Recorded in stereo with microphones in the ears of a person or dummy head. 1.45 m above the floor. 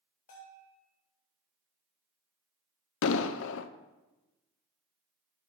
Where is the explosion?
75° left (ahead or behind), 0.6 m.